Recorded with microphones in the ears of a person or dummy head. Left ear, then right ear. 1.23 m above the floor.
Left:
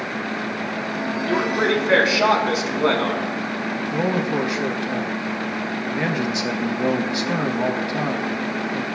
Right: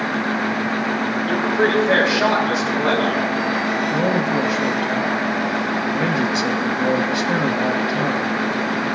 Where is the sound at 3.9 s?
5° left (ahead or behind), 1.0 m.